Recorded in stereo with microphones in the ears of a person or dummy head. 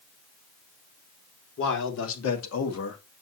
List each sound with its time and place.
1.6 s a man speaking: 65° left (ahead or behind), 3 m